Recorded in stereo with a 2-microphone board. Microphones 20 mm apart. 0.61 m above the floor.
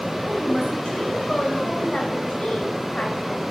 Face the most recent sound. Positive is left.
turn(degrees=65)  # may be behind; listen again after turning